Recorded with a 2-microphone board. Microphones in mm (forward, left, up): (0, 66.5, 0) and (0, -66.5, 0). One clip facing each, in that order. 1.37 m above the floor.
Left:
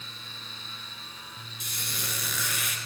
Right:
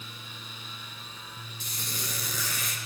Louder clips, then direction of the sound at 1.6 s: Even; 35° right (ahead or behind).